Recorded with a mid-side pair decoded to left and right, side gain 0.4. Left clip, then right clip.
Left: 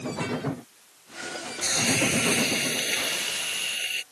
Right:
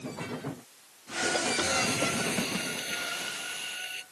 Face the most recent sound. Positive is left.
turn(degrees=60)